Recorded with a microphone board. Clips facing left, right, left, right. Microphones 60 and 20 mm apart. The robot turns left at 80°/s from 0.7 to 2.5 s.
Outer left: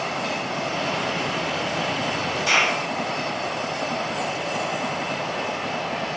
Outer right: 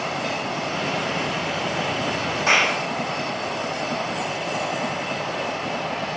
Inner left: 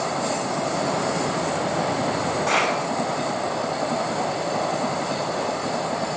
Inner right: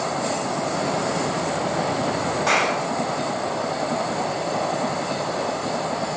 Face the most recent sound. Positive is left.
turn(degrees=-40)  # may be behind; listen again after turning